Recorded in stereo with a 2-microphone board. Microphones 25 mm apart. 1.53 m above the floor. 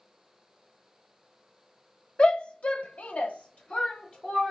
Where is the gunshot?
I don't hear a gunshot.